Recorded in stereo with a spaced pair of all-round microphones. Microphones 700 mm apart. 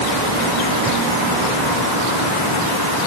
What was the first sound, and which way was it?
Only background noise.